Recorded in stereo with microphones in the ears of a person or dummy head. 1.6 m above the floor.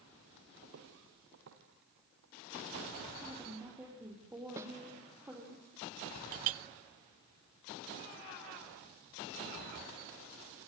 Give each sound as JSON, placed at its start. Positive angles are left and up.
{"t": 0.6, "sound": "footsteps", "side_deg": -55, "distance_m": 2.5}
{"t": 3.2, "sound": "a woman speaking", "side_deg": -10, "distance_m": 4.5}
{"t": 4.6, "sound": "a snare drum", "side_deg": -15, "distance_m": 1.1}
{"t": 6.3, "sound": "a clink", "side_deg": -45, "distance_m": 0.6}